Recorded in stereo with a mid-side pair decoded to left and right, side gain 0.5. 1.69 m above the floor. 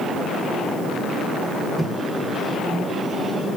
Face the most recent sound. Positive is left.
turn(degrees=-10)